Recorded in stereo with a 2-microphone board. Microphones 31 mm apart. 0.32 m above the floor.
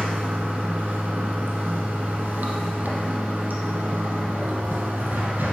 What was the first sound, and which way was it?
Running water, 80° right.